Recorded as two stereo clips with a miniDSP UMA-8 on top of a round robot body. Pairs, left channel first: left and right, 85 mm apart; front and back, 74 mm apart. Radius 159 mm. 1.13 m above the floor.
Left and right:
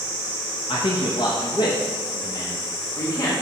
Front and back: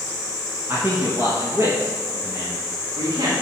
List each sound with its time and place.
0.7 s a man speaking: 115° left, 1.0 m; by 3.3 s 140° left, 2 m